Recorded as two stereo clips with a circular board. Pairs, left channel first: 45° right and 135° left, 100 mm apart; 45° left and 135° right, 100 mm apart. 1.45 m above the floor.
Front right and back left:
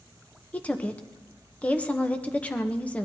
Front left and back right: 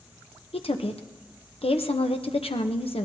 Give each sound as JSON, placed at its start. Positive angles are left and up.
{"t": 0.5, "sound": "a woman speaking", "azimuth_deg": 30, "distance_m": 0.7}